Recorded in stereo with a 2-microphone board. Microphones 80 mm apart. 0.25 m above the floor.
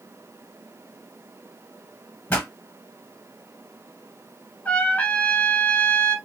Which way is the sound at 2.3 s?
25° left (ahead or behind).